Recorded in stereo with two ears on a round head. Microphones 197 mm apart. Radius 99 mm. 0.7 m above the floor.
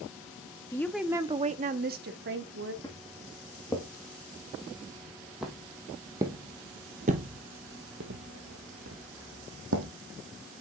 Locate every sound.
0.7 s a woman speaking: 15° left (ahead or behind), 0.6 m; by 2.7 s 60° right (ahead or behind), 1.3 m
2.8 s footsteps: 20° left (ahead or behind), 3 m; by 9.9 s 60° right (ahead or behind), 1.9 m